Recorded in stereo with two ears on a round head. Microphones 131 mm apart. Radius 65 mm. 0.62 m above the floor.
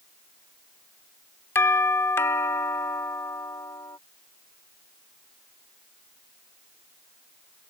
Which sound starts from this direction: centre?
A doorbell, at 1.6 s.